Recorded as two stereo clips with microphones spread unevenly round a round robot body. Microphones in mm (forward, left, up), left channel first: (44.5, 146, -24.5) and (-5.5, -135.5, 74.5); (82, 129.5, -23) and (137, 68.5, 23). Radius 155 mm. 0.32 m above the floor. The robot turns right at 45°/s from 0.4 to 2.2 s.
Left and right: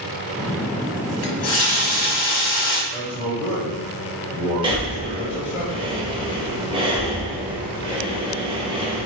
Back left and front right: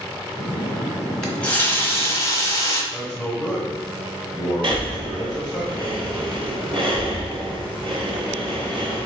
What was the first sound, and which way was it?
A running tap, 65° left.